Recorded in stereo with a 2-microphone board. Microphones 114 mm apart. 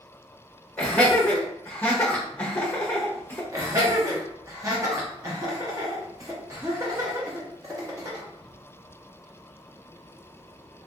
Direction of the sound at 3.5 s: 30° right (ahead or behind).